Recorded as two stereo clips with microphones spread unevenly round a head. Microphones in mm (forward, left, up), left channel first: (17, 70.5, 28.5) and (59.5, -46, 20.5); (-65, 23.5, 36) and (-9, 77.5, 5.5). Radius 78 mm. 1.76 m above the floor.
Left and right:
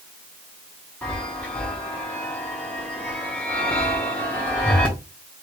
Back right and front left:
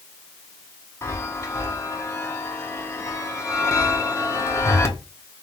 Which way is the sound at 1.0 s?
170° right.